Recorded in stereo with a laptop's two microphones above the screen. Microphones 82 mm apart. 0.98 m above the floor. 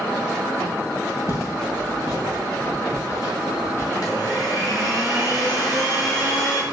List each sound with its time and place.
1.3 s footsteps: 45° left (ahead or behind), 1.6 m
3.9 s a blender: 50° left (ahead or behind), 1.0 m